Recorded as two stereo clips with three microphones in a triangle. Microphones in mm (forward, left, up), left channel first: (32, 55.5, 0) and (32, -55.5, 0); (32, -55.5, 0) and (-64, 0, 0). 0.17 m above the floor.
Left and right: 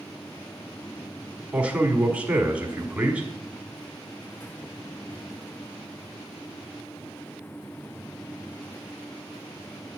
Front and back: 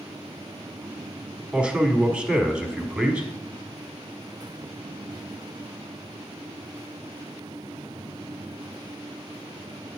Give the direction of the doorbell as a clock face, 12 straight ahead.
No doorbell in this recording.